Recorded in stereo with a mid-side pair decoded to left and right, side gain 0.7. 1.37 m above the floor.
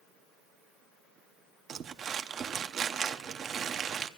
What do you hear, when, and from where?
1.7 s crumpling: 40° right, 0.7 m